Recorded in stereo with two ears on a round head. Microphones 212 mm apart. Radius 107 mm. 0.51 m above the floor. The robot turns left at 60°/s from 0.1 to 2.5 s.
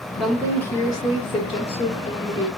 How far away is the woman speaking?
About 0.9 m.